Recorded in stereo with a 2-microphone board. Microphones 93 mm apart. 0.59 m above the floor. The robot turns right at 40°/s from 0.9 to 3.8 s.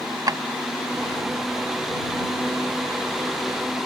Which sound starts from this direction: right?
A drawer, at 0.3 s.